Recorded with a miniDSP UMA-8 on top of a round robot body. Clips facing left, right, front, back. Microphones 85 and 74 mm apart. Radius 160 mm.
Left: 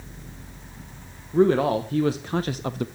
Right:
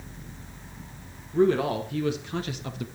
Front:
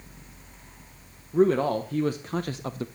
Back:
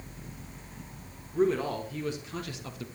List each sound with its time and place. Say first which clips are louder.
1.3 s a man speaking: left 3 dB, front 5 dB; 35° left, 1.3 m; by 2.9 s 50° left, 0.6 m